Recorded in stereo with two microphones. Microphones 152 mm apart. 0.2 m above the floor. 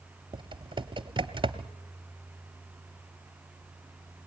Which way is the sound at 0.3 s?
35° right (ahead or behind).